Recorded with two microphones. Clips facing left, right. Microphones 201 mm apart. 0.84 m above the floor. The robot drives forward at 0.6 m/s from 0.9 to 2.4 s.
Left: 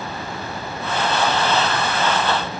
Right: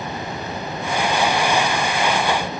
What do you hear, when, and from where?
Only background noise.